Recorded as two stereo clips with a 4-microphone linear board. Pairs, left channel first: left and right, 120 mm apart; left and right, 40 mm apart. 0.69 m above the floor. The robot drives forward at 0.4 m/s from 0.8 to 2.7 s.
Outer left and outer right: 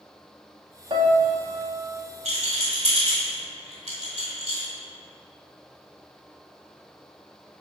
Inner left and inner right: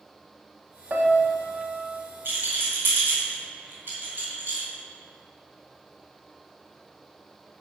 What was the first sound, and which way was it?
A piano, 50° right (ahead or behind).